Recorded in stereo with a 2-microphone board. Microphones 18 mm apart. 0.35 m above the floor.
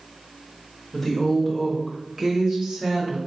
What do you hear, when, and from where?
0.9 s a woman speaking: 15° left (ahead or behind), 1.1 m; by 3.2 s 40° right (ahead or behind), 1.8 m